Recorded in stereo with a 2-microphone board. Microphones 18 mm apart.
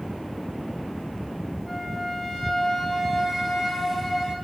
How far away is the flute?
About 3.5 m.